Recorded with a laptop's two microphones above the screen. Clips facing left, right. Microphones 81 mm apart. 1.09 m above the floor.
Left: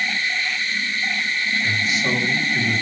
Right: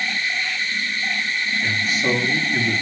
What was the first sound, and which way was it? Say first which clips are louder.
A man speaking: right 3 dB; 50° right (ahead or behind).